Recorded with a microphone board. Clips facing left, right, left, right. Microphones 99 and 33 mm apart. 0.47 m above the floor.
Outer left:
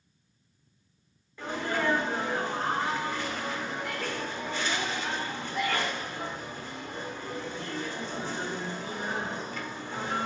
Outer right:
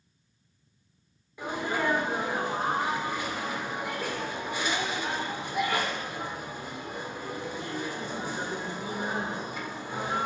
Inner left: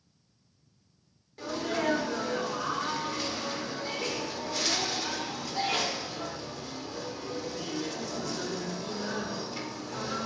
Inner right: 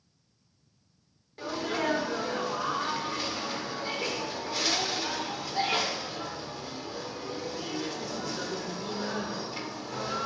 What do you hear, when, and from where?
1.4 s a sneeze: 15° right (ahead or behind), 1.2 m